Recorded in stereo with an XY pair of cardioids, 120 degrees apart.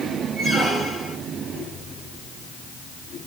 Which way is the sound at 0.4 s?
10° right.